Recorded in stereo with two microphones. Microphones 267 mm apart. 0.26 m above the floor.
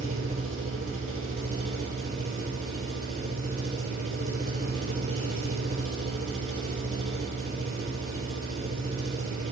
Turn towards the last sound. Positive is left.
turn(degrees=-60)  # may be behind; listen again after turning